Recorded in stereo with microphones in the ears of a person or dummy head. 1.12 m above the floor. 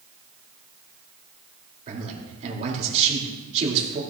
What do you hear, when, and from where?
1.9 s a man speaking: 40° right (ahead or behind), 2.5 m